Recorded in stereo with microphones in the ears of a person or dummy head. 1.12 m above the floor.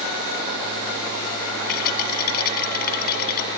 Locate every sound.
1.7 s a rattle: 50° left (ahead or behind), 2 m